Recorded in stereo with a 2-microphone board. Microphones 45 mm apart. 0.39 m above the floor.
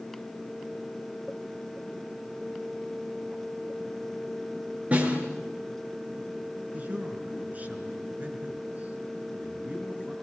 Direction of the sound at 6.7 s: 30° right (ahead or behind).